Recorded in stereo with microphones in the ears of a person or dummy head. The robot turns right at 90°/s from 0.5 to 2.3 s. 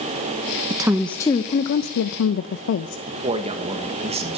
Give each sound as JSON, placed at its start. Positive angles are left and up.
{"t": 0.7, "sound": "a woman speaking", "azimuth_deg": -30, "distance_m": 0.7}
{"t": 3.1, "sound": "a man speaking", "side_deg": -30, "distance_m": 1.5}